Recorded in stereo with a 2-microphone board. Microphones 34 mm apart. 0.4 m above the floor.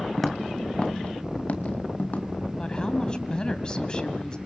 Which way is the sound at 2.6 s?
25° left (ahead or behind).